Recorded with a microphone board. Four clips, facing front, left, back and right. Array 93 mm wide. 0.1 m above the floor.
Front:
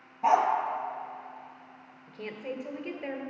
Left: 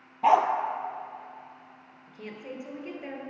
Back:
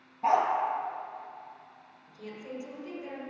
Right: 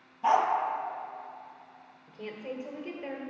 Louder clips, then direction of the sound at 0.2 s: Left 4 dB, front 2 dB; 80° left.